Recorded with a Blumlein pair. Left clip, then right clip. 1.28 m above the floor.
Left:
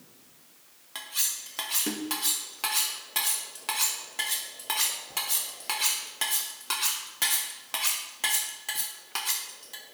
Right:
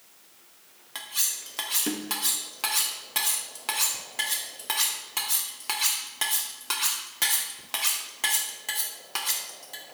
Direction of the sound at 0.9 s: Straight ahead.